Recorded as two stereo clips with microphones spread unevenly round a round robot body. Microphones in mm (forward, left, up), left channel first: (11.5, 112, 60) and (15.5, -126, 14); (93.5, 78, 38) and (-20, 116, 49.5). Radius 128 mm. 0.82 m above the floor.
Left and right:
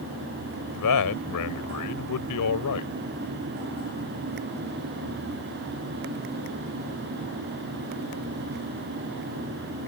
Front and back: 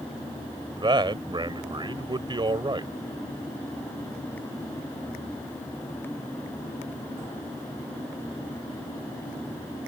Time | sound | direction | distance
0.8 | a man speaking | 110° left | ?